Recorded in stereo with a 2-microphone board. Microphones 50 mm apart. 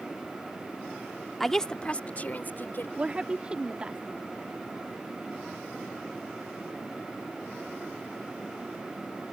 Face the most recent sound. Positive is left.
turn(degrees=-20)  # may be behind; listen again after turning